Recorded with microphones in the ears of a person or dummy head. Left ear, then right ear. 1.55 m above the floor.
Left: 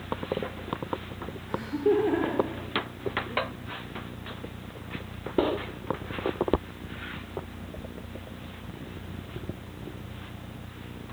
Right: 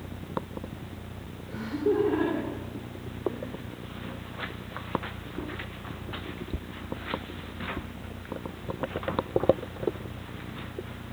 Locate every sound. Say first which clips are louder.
1.5 s laughter: left 2 dB; 40° left (ahead or behind), 6.5 m